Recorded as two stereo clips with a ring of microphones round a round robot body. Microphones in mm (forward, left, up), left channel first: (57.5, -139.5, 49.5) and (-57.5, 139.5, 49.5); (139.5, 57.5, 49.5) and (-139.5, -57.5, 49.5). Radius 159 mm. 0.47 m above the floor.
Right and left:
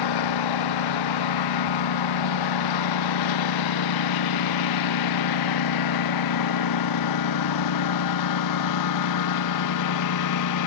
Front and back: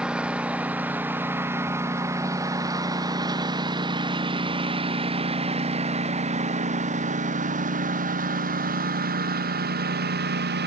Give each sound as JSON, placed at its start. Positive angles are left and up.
{"t": 0.0, "sound": "a lawn mower", "azimuth_deg": -70}